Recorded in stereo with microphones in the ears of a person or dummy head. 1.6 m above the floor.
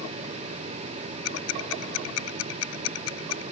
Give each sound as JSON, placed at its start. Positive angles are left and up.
{"t": 1.2, "sound": "ticking", "side_deg": 85}